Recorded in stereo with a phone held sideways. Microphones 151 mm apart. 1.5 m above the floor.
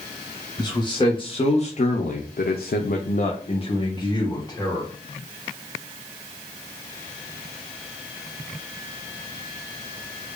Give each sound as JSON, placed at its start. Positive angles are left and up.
{"t": 0.6, "sound": "a man speaking", "side_deg": 25, "distance_m": 1.2}